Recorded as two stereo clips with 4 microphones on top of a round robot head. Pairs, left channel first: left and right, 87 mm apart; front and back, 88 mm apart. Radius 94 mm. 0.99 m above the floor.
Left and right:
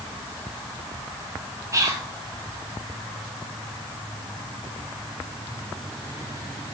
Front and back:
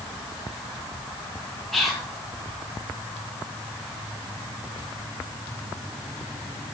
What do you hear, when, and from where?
1.7 s whispering: 85° right, 0.8 m